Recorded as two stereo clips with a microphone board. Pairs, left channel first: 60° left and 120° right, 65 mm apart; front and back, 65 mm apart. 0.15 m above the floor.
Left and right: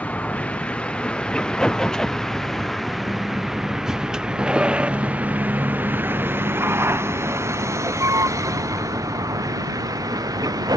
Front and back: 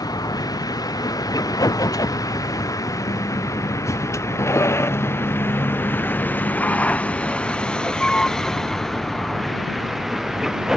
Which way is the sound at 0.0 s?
10° right.